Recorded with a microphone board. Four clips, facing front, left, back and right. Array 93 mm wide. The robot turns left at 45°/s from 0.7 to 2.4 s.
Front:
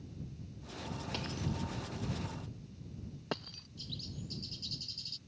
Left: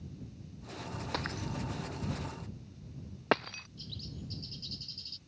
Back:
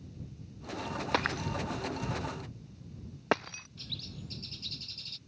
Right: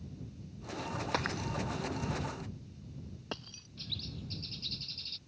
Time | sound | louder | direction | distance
1.1 | breaking glass | right 2 dB, back 8 dB | 170° right | ?
3.8 | a bird | right 2 dB, front 2 dB | 140° right | ?